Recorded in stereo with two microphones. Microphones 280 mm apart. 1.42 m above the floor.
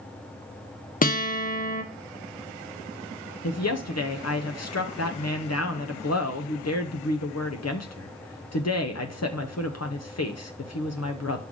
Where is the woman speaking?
60° left (ahead or behind), 0.7 m.